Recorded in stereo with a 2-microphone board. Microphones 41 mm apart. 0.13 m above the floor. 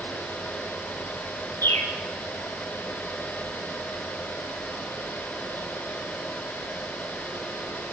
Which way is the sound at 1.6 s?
60° left (ahead or behind).